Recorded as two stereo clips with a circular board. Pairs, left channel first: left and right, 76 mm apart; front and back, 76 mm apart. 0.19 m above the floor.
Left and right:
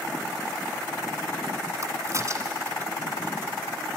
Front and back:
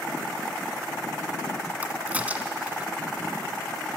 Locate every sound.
1.8 s a crack: 115° right, 1.6 m